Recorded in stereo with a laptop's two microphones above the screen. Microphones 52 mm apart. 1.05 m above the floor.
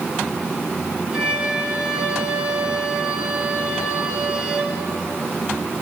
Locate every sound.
1.1 s a violin: 20° right (ahead or behind), 2.5 m